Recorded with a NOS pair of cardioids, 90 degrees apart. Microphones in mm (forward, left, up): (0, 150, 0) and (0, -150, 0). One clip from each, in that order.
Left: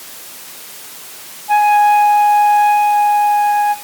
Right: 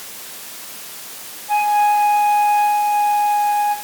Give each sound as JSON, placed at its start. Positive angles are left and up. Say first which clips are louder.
{"t": 1.5, "sound": "a flute", "louder": "left 5 dB", "azimuth_deg": 50, "distance_m": 8.5}